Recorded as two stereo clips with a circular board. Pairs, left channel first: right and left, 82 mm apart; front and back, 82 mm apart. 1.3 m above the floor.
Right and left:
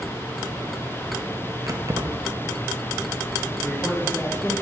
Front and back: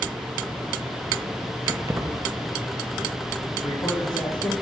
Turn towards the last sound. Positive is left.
turn(degrees=-25)